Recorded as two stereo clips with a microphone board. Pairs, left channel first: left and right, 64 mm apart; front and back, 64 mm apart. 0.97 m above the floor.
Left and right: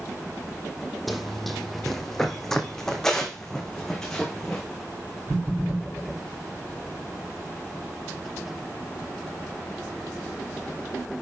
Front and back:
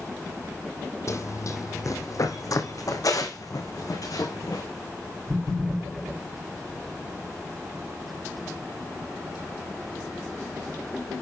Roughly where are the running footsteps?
Ahead.